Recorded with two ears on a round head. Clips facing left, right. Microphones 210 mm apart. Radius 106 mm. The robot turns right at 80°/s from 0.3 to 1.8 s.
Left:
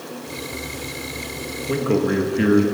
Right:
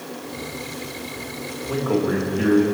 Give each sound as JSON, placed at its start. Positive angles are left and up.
{"t": 1.7, "sound": "a man speaking", "side_deg": 35, "distance_m": 1.9}